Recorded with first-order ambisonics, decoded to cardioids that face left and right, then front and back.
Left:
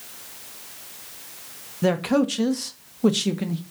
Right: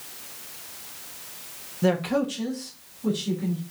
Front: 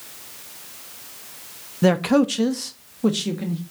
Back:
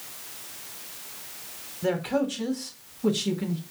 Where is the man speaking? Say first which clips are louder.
Left 2 dB, front 8 dB; 10° left, 1.1 m; by 3.6 s 75° left, 1.6 m.